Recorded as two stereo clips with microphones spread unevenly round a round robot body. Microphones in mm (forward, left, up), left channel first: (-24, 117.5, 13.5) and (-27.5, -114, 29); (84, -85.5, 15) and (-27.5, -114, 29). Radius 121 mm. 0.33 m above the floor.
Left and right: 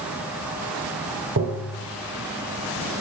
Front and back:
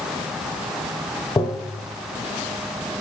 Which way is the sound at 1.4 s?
50° right.